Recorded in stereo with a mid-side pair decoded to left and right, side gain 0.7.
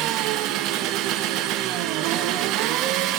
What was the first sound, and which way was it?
An engine running, 60° right.